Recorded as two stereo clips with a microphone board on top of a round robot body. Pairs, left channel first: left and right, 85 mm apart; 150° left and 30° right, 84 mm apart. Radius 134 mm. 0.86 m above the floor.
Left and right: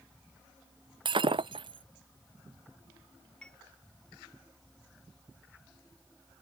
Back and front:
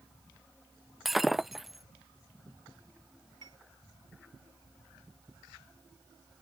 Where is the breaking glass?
120° right.